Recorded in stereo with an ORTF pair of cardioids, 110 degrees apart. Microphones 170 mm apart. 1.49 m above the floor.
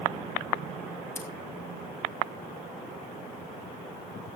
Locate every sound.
1.1 s scissors: 15° left, 5.5 m